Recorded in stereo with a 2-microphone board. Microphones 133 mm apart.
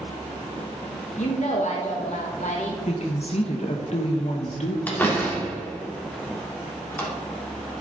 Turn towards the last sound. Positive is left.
turn(degrees=15)  # may be behind; listen again after turning